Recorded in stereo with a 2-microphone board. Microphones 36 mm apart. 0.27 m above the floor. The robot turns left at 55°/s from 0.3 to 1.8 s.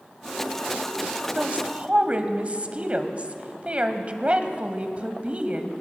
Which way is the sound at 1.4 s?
35° right (ahead or behind).